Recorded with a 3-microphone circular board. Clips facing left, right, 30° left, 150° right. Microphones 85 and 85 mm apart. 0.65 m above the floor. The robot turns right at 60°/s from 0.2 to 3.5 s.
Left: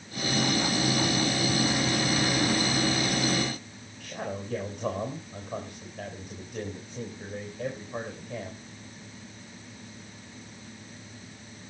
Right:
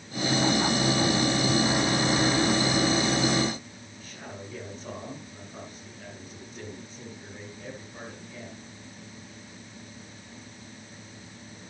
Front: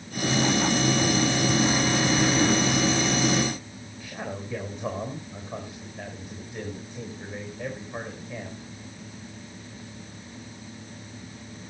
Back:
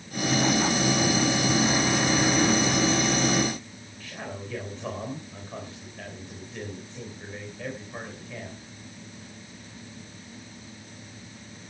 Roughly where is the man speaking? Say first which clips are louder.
Left 8 dB, front 2 dB; left.